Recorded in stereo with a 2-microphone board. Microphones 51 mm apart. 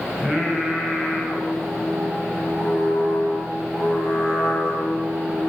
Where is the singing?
15° right (ahead or behind), 6.5 m.